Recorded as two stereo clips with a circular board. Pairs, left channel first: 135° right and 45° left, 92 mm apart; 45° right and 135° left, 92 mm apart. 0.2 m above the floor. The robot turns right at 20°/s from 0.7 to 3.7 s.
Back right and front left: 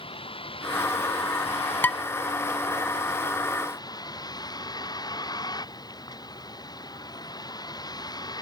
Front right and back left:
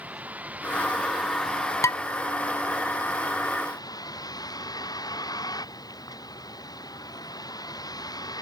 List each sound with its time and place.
0.0 s a vehicle: 150° right; by 8.4 s 90° right
1.8 s dishes clattering: 80° right; by 2.0 s 75° right